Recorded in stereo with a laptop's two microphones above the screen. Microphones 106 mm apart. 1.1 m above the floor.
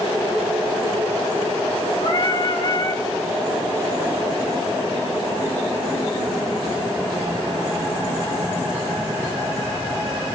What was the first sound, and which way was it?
Singing, 50° left (ahead or behind).